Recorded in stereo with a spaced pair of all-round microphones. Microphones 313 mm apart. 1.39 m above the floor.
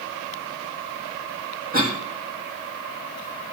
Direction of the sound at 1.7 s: 30° right (ahead or behind).